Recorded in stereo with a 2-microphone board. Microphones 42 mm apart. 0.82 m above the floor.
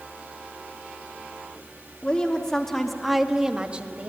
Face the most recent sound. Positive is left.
turn(degrees=-40)  # may be behind; listen again after turning